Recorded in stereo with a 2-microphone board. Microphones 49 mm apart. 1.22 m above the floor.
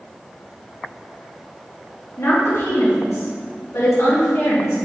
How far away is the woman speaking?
About 2.5 m.